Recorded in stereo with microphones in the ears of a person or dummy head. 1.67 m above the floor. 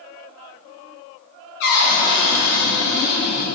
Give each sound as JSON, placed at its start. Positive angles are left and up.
{"t": 1.6, "sound": "a cupboard door", "side_deg": 55, "distance_m": 0.7}